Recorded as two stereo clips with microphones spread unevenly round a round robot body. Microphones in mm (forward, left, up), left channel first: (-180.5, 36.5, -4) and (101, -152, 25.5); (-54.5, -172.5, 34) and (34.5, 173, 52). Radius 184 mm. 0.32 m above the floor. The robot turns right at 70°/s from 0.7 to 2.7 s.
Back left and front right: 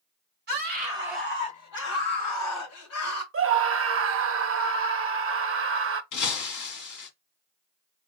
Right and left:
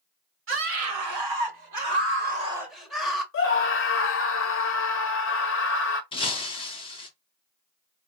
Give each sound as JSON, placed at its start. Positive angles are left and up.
{"t": 0.5, "sound": "a scream", "azimuth_deg": 25, "distance_m": 1.9}
{"t": 3.3, "sound": "a scream", "azimuth_deg": -70, "distance_m": 1.1}
{"t": 6.1, "sound": "breaking glass", "azimuth_deg": 180, "distance_m": 1.5}